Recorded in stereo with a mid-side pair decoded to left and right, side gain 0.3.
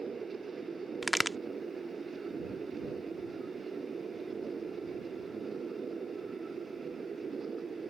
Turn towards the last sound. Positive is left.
turn(degrees=-5)